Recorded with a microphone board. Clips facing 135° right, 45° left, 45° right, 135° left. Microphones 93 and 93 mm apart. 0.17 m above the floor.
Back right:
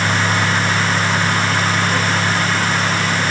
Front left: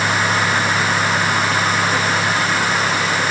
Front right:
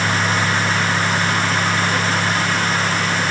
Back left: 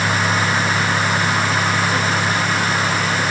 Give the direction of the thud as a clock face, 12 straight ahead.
I don't hear a thud.